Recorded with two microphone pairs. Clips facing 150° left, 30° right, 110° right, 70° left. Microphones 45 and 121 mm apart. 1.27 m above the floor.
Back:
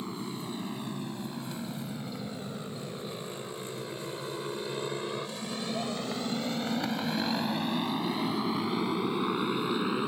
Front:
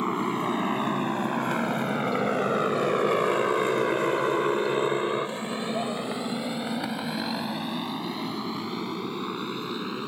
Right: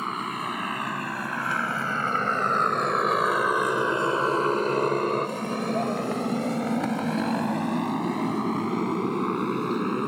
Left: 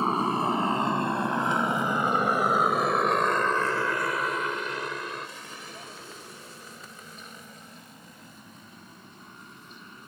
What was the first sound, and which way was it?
A motorcycle, 10° left.